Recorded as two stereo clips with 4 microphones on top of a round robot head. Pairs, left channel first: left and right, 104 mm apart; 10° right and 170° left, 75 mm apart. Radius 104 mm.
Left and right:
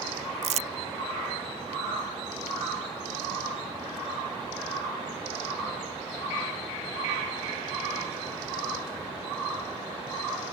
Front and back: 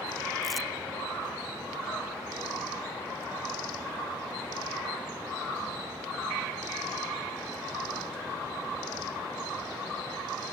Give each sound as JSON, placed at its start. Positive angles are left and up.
{"t": 0.4, "sound": "crumpling", "azimuth_deg": -95}